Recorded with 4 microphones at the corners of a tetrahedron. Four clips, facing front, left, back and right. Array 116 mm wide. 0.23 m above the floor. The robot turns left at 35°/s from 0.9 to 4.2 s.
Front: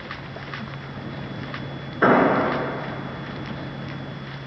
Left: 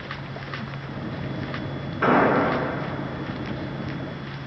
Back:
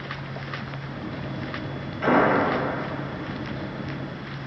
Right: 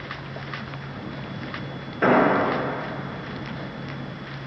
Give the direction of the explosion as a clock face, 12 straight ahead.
12 o'clock.